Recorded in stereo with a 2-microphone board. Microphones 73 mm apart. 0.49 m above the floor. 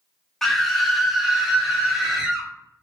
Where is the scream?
5° left (ahead or behind), 1.0 m; by 2.5 s 10° right (ahead or behind), 1.6 m.